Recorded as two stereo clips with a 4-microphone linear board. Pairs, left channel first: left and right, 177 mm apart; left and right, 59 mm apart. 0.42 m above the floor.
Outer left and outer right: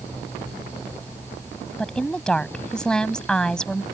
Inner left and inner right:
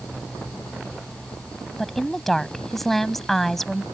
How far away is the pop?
I don't hear a pop.